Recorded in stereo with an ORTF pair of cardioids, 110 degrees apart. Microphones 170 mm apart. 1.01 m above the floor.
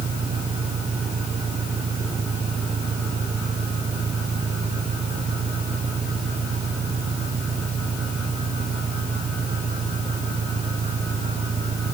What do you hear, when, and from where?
0.0 s an engine running: 35° right